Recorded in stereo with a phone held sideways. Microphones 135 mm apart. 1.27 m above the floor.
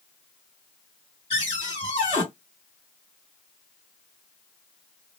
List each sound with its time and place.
1.3 s a cupboard door: 50° left (ahead or behind), 2 m